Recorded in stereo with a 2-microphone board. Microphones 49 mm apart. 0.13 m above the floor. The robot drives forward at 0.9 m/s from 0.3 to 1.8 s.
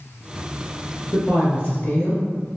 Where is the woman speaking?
40° left (ahead or behind), 1.9 m; by 2.2 s 45° left (ahead or behind), 1.7 m.